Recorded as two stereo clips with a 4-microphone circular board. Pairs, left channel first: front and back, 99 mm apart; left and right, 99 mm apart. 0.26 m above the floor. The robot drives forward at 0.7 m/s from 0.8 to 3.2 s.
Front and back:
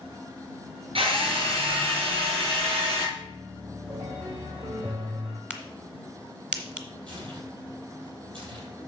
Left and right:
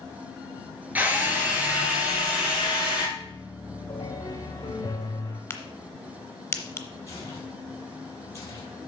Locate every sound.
0.9 s a drill: 160° right, 2.5 m; by 3.0 s 170° right, 3.5 m
3.1 s a piano: 145° left, 1.8 m
5.5 s a crack: 110° left, 1.2 m
7.1 s tearing paper: 150° left, 3.5 m